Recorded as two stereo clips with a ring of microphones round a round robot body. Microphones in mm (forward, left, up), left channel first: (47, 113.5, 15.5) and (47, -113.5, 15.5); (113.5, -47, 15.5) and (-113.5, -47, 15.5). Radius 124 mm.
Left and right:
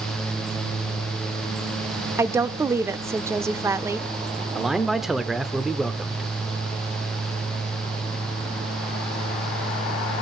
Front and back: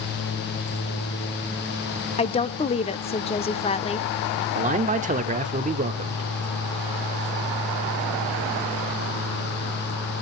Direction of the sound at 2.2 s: 25° right.